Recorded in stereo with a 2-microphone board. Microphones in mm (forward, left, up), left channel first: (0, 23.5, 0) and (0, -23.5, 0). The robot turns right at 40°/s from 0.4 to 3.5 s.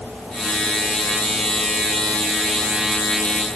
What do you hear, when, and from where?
Only background noise.